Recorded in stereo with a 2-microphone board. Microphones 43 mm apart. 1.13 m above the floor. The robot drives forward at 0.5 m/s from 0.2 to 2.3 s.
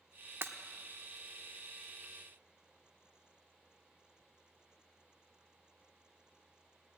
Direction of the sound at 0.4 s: 60° right (ahead or behind).